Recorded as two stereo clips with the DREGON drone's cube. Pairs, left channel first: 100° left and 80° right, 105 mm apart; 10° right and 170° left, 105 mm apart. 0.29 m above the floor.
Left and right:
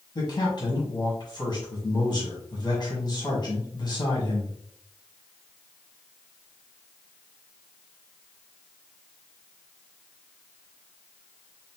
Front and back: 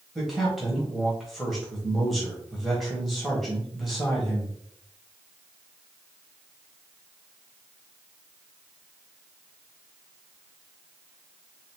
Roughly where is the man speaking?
Left.